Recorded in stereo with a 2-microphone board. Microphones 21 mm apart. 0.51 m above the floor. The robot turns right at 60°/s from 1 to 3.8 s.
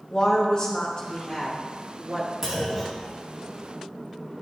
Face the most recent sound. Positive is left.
turn(degrees=55)